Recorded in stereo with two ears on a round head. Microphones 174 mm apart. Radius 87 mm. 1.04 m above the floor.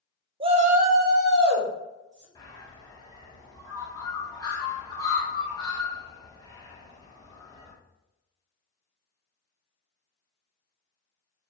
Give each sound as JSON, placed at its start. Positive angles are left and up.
{"t": 0.4, "sound": "a shout", "side_deg": -30, "distance_m": 0.6}
{"t": 2.4, "sound": "a bird", "side_deg": 20, "distance_m": 1.2}